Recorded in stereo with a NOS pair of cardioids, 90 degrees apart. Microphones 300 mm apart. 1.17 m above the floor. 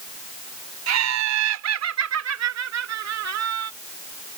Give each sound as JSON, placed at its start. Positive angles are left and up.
{"t": 0.9, "sound": "laughter", "azimuth_deg": -60}